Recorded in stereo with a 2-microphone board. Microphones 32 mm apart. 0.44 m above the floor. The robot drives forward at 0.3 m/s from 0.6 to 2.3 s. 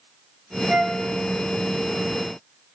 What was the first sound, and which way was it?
A flute, 25° right (ahead or behind).